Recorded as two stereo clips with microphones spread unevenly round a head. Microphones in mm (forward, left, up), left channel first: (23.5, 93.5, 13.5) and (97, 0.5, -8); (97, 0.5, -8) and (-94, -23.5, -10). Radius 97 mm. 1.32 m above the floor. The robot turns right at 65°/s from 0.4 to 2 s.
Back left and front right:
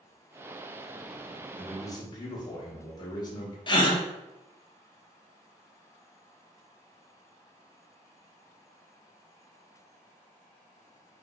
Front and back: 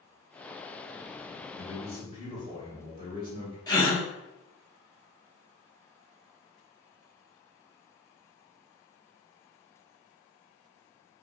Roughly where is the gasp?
Left.